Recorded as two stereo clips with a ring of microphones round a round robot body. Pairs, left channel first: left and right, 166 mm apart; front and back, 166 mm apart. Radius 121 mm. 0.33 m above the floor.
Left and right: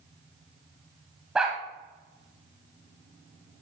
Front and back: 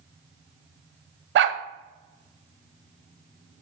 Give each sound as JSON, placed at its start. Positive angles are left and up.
{"t": 1.4, "sound": "a dog barking", "azimuth_deg": -175, "distance_m": 0.6}